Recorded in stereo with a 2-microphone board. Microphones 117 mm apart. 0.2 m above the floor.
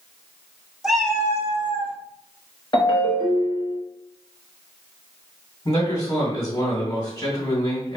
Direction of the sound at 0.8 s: 5° right (ahead or behind).